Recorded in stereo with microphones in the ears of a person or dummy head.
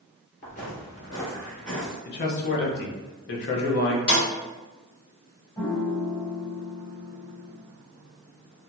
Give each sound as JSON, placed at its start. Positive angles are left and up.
{"t": 0.4, "sound": "footsteps", "side_deg": 40, "distance_m": 1.9}
{"t": 2.0, "sound": "a man speaking", "side_deg": 50, "distance_m": 1.0}
{"t": 4.1, "sound": "a snare drum", "side_deg": 60, "distance_m": 2.0}
{"t": 5.6, "sound": "a piano", "side_deg": 20, "distance_m": 1.4}